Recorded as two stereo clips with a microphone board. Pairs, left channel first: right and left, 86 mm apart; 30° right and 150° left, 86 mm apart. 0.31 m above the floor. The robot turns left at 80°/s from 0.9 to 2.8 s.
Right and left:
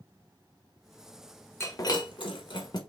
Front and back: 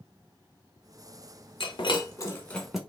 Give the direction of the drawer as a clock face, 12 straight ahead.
No drawer in this recording.